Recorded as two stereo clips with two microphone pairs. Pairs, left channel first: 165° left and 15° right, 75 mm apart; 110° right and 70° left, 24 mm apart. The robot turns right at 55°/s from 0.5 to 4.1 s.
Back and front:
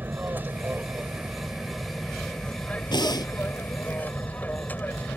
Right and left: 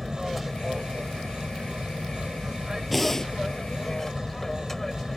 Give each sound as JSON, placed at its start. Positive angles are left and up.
{"t": 0.0, "sound": "an aircraft", "azimuth_deg": -10}
{"t": 2.9, "sound": "breathing", "azimuth_deg": 160}